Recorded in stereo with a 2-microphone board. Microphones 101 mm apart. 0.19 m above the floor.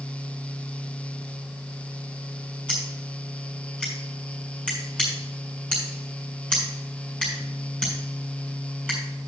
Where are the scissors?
10° left (ahead or behind), 5.5 m.